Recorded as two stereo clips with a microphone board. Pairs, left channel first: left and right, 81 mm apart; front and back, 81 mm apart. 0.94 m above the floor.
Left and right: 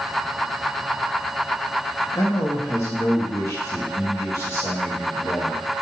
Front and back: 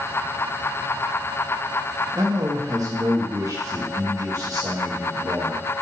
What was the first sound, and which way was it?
A man speaking, 140° left.